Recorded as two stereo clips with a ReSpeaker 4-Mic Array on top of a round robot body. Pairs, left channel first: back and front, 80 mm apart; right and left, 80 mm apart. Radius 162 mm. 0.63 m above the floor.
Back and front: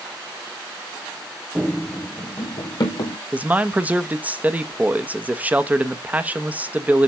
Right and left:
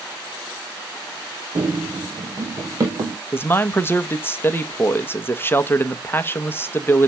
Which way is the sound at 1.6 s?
70° left.